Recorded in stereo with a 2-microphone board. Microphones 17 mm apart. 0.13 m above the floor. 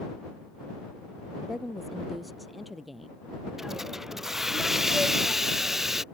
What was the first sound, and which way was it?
A woman speaking, 5° right (ahead or behind).